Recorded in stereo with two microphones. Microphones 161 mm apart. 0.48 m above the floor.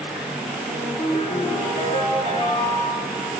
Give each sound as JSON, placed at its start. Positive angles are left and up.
{"t": 0.7, "sound": "a ringtone", "side_deg": 35, "distance_m": 5.5}